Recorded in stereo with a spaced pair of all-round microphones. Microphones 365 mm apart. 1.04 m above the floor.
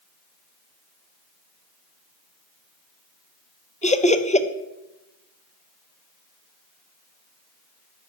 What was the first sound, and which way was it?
Laughter, 20° left (ahead or behind).